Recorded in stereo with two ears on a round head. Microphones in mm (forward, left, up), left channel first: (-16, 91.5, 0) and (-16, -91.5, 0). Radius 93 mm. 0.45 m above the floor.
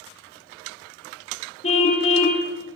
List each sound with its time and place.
1.6 s a car horn: 35° left (ahead or behind), 7.5 m